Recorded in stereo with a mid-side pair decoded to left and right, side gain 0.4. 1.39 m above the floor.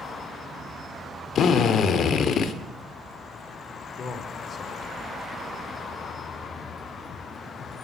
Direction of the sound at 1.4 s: 65° left.